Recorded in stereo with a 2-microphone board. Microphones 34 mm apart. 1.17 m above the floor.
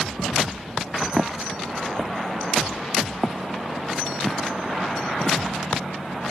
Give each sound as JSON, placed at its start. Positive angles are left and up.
{"t": 1.2, "sound": "footsteps", "side_deg": -5}